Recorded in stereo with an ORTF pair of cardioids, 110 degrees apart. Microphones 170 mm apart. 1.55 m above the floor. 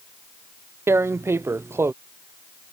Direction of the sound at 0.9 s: 15° right.